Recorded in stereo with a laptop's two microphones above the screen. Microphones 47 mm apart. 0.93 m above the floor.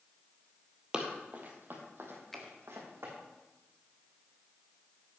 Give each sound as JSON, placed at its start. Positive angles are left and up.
{"t": 0.9, "sound": "running footsteps", "side_deg": -20, "distance_m": 1.4}
{"t": 2.3, "sound": "a finger snap", "side_deg": 10, "distance_m": 1.0}